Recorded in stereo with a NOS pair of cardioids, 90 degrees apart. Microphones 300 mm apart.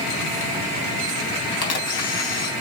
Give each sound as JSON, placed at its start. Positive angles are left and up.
{"t": 1.6, "sound": "a camera shutter", "azimuth_deg": 65, "distance_m": 3.5}